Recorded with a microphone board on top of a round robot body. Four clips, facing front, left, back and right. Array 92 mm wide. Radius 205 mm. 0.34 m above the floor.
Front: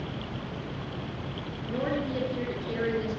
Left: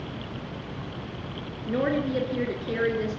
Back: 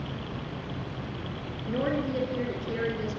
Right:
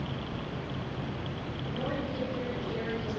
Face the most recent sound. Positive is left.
turn(degrees=105)